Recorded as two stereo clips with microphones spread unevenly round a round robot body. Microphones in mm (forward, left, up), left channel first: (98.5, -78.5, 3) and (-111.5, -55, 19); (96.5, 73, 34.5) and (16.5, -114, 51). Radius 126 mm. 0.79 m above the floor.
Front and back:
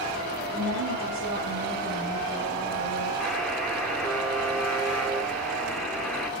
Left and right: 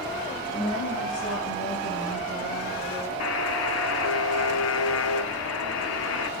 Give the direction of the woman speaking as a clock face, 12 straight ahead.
8 o'clock.